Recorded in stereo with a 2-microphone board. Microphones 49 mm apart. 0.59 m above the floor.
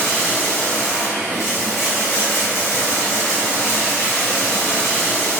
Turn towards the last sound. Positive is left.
turn(degrees=75)  # may be behind; listen again after turning